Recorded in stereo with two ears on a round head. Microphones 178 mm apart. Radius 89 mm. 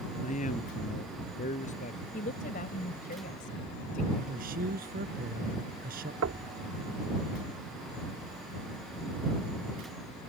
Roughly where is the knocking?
Right.